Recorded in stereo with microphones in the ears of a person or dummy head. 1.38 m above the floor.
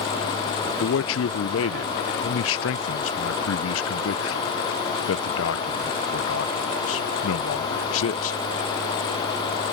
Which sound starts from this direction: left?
A man speaking, at 0.8 s.